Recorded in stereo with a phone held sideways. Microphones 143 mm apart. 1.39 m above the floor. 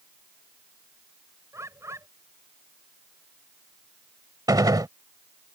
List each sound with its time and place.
1.5 s a bird: 20° right (ahead or behind)
4.5 s a gunshot: 30° right (ahead or behind)